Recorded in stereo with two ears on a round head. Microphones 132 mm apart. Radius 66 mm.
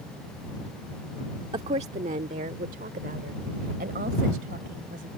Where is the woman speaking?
40° right (ahead or behind); by 5.1 s 65° right (ahead or behind).